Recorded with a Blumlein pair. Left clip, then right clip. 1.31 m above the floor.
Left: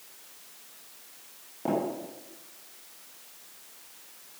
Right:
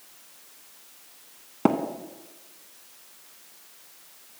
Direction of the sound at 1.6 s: 45° right.